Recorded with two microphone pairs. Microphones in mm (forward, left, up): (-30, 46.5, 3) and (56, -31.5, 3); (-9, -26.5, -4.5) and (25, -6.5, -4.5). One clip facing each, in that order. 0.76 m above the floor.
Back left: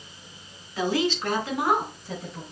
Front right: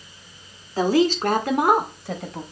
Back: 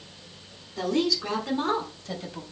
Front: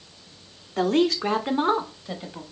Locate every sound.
0.8 s a woman speaking: 5° left, 1.2 m; by 2.4 s 55° right, 1.1 m